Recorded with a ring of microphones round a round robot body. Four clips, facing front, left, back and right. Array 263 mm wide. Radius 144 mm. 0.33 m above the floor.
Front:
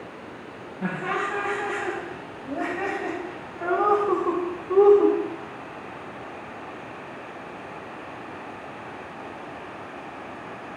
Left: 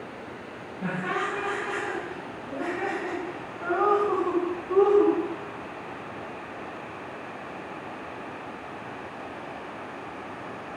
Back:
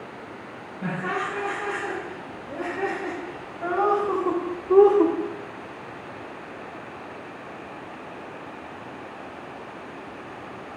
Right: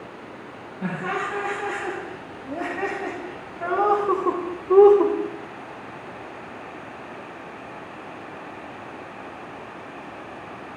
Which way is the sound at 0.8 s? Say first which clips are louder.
Right 2 dB, front 1 dB; 30° right.